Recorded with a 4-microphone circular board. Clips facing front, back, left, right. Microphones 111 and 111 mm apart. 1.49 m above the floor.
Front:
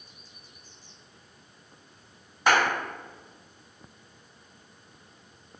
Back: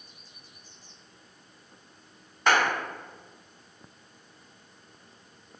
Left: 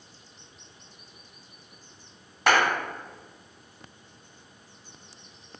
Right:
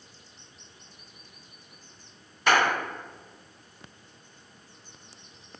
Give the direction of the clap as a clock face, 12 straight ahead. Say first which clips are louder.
Front 1 dB, left 1 dB; 9 o'clock.